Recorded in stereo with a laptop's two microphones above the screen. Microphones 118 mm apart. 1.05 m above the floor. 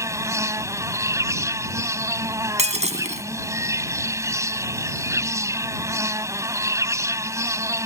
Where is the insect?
25° right (ahead or behind).